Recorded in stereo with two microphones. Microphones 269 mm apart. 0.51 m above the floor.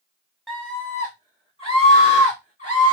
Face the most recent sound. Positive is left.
turn(degrees=30)  # may be behind; listen again after turning